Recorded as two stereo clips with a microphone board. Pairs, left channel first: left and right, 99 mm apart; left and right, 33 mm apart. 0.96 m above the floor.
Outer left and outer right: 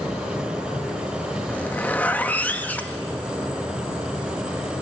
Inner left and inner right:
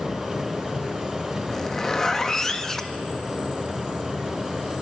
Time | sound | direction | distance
1.5 | a zipper | 15° left (ahead or behind) | 1.3 m